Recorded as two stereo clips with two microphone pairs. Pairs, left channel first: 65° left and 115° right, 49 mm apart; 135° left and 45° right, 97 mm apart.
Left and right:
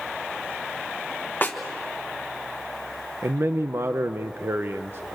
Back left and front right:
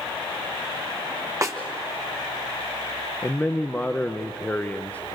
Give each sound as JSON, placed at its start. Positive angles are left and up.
{"t": 1.4, "sound": "a snare drum", "azimuth_deg": 10, "distance_m": 1.4}
{"t": 3.2, "sound": "a man speaking", "azimuth_deg": -145, "distance_m": 0.6}